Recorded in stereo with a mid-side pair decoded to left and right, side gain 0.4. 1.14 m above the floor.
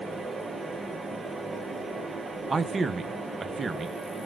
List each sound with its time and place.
0.0 s a fan: 35° right, 1.0 m
2.5 s a man speaking: 35° right, 0.5 m